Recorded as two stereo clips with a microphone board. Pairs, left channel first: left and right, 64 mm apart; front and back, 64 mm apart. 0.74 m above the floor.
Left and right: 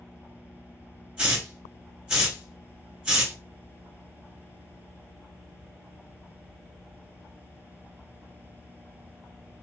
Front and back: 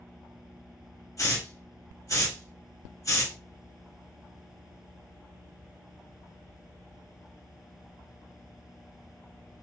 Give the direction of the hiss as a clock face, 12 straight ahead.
12 o'clock.